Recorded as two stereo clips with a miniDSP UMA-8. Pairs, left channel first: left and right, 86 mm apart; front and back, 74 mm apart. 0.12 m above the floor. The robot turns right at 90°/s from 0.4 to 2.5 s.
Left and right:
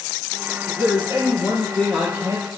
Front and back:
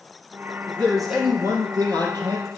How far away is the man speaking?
About 4 m.